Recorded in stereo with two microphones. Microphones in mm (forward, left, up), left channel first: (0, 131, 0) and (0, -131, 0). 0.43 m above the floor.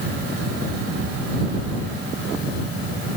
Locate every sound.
Only background noise.